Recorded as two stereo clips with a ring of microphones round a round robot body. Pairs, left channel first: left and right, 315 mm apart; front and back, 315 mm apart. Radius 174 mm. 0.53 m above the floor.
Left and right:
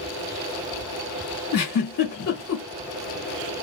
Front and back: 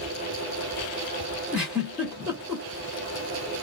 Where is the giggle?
95° left, 1.6 m.